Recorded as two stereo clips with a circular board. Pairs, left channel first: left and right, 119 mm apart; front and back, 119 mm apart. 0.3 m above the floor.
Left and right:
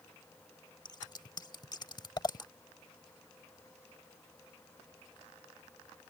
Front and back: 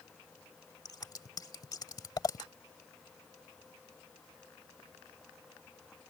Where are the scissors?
45° left.